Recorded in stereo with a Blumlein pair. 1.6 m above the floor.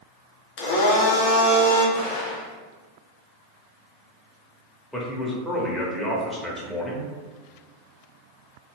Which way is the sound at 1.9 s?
50° left.